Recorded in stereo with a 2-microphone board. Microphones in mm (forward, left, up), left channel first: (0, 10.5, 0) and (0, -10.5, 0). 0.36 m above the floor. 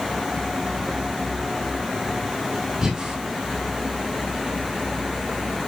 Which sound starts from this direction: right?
Breathing, at 2.8 s.